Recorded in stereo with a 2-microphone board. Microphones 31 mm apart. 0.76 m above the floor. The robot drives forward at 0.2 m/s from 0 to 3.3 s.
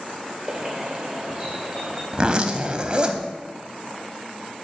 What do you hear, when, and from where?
0.5 s a bird: 25° right (ahead or behind), 1.2 m; by 2.0 s 20° right (ahead or behind), 1.4 m
2.1 s a zipper: 30° right (ahead or behind), 0.7 m; by 3.3 s 35° right (ahead or behind), 0.6 m